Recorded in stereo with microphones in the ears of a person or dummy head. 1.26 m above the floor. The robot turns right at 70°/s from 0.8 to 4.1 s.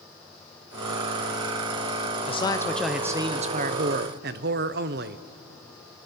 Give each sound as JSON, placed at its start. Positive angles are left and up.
{"t": 2.3, "sound": "a man speaking", "azimuth_deg": 135, "distance_m": 0.6}